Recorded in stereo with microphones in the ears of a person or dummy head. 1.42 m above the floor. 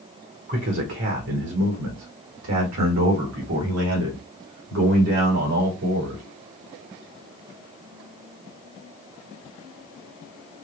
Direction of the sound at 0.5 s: 50° right (ahead or behind).